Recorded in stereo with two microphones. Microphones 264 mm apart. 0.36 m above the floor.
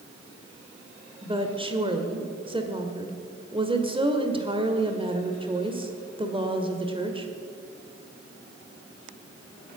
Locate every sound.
1.2 s a woman speaking: 20° right (ahead or behind), 1.5 m